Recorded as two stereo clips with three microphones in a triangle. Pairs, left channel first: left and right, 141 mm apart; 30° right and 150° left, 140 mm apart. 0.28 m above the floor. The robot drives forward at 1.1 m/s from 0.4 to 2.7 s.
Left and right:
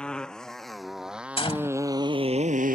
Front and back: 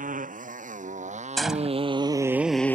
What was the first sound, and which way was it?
A motorcycle, 175° left.